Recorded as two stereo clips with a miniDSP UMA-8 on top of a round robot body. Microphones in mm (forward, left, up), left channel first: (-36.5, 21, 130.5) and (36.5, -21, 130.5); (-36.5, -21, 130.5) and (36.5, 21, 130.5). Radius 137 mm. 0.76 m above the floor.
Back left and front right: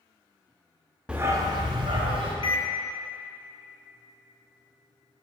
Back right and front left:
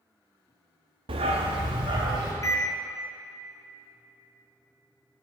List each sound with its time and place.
1.1 s a dog barking: 50° left, 0.6 m; by 2.3 s 5° right, 2 m
2.4 s a microwave: 160° left, 1.6 m